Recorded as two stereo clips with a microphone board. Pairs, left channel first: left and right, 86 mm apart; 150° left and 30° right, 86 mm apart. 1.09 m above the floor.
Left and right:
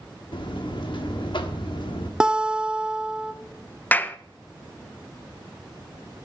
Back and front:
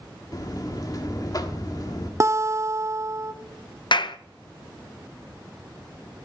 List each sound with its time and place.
0.3 s a buzzer: 110° left, 1.3 m
2.2 s a guitar: 10° right, 0.6 m
3.9 s a clap: 160° left, 0.6 m